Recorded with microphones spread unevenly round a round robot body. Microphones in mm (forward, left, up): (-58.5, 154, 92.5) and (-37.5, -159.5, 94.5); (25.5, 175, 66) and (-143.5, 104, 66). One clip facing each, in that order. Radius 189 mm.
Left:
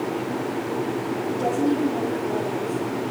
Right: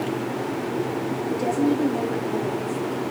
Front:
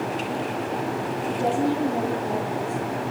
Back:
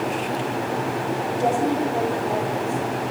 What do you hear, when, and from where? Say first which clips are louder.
1.3 s a woman speaking: right 1 dB, back 1 dB; 15° right, 8.5 m